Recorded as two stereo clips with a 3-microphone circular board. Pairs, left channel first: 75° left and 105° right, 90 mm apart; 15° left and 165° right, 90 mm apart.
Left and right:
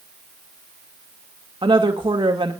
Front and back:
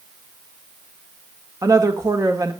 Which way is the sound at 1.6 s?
120° right.